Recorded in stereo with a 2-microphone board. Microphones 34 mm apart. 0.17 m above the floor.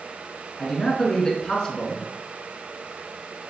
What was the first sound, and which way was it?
A man speaking, 15° left (ahead or behind).